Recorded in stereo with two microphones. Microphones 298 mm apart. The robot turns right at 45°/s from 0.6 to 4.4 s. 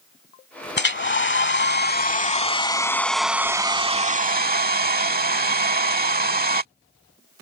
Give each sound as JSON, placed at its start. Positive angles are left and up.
{"t": 0.8, "sound": "a hair dryer", "azimuth_deg": 70}